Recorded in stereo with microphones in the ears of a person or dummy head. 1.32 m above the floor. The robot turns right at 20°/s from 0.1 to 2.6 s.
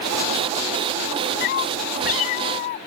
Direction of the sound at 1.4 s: 50° left (ahead or behind).